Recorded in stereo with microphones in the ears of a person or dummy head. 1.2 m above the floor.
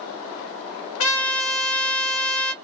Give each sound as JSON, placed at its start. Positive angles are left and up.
{"t": 1.0, "sound": "a trumpet", "side_deg": 75, "distance_m": 0.7}